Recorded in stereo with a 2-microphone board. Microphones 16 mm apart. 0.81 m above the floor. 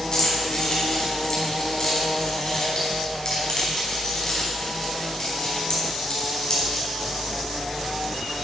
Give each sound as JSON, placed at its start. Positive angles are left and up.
{"t": 0.1, "sound": "keys jangling", "side_deg": 35, "distance_m": 4.5}